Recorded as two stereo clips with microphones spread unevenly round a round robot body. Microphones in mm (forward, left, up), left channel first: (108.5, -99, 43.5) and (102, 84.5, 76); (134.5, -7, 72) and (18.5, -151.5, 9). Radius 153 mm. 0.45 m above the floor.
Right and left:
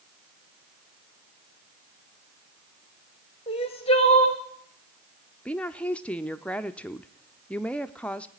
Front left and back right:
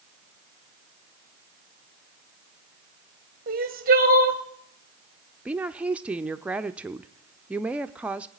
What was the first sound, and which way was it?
Crying, 140° right.